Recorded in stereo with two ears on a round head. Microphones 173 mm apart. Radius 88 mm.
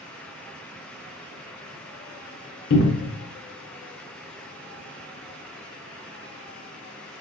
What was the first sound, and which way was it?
A cupboard door, 60° left (ahead or behind).